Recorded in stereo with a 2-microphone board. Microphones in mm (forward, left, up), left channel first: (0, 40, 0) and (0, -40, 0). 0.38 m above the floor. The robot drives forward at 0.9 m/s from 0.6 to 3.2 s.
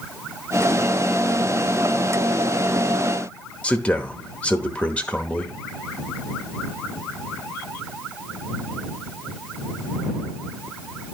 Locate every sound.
3.6 s a man speaking: 15° left (ahead or behind), 1.0 m